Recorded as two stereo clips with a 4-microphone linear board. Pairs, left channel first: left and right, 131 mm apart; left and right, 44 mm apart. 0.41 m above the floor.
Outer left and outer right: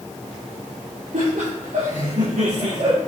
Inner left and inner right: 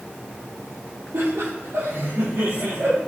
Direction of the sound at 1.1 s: 75° right (ahead or behind).